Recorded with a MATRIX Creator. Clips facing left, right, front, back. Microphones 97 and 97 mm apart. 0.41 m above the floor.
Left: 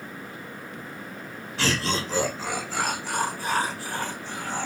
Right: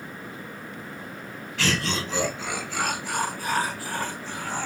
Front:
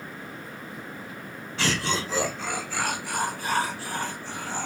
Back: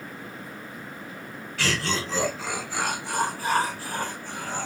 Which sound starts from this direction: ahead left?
Laughter, at 1.6 s.